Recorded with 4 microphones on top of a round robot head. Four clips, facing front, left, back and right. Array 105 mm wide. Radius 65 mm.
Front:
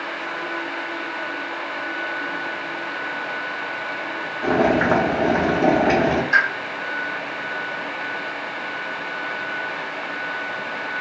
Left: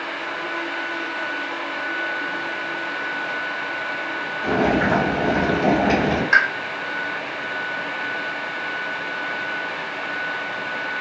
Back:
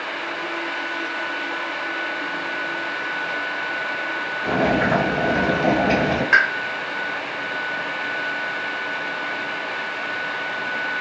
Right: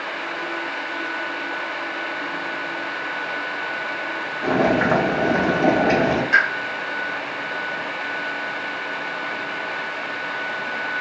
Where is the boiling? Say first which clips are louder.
Right 1 dB, front 2 dB; 35° right, 0.9 m.